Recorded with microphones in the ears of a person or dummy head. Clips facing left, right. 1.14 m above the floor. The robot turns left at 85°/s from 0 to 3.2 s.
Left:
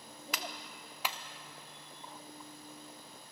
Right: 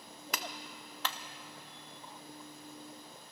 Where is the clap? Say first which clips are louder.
Right 2 dB; 45° right (ahead or behind), 0.6 m; by 1.2 s 25° left (ahead or behind), 0.6 m.